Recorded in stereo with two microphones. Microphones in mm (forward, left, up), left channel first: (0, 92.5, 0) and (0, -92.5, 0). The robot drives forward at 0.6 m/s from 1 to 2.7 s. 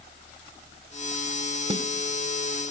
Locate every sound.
1.7 s a snare drum: 30° right (ahead or behind), 0.8 m; by 1.9 s 25° right (ahead or behind), 0.9 m